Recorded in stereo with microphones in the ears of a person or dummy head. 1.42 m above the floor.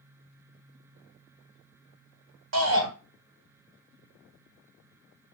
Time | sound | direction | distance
2.5 | a shout | 75° right (ahead or behind) | 1.3 m